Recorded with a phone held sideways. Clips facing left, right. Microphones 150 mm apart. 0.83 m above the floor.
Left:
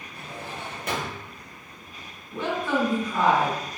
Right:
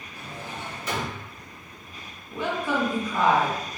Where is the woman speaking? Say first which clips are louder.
Left 1 dB; 15° right (ahead or behind), 1.4 m.